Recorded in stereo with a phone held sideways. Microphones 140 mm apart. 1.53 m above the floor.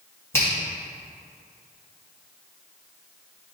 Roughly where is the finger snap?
Centre.